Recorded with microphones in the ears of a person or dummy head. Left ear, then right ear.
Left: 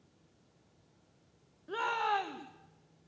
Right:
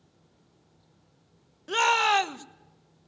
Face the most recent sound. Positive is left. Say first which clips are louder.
# right 10 dB
turn(degrees=-75)  # may be behind; listen again after turning